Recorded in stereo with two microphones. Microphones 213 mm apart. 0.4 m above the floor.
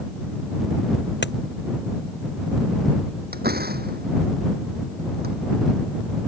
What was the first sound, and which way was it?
A crack, 55° left (ahead or behind).